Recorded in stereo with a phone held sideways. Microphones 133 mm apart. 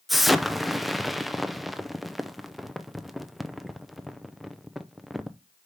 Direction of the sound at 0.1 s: Centre (ahead or behind).